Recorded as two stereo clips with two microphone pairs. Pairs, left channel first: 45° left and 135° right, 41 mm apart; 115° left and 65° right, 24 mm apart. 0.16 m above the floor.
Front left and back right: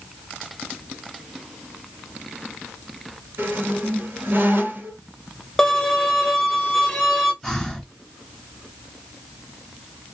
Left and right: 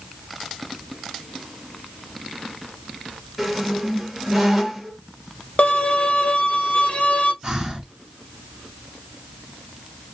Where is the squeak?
145° right, 1.4 m.